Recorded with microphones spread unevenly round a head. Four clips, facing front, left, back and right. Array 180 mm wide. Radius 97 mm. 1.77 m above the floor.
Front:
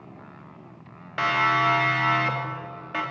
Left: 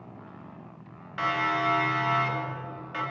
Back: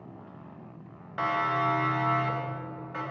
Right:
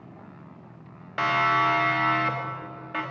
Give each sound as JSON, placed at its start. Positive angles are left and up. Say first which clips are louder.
{"t": 1.2, "sound": "a siren", "louder": "right 4 dB, front 5 dB", "azimuth_deg": -45, "distance_m": 3.0}